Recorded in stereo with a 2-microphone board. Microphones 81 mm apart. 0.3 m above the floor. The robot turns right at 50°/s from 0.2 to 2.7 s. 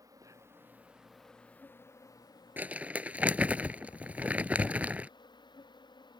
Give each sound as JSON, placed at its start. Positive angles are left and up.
{"t": 0.0, "sound": "an insect", "azimuth_deg": -50}
{"t": 2.6, "sound": "crumpling", "side_deg": -25}